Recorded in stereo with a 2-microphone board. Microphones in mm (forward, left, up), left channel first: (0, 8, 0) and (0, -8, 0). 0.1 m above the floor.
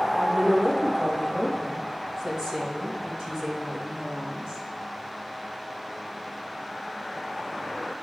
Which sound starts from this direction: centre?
A woman speaking, at 0.1 s.